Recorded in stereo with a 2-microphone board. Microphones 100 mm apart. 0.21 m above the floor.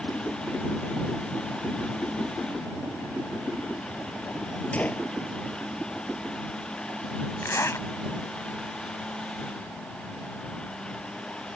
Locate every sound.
4.7 s a gunshot: 15° left (ahead or behind)
7.4 s a zipper: 30° left (ahead or behind)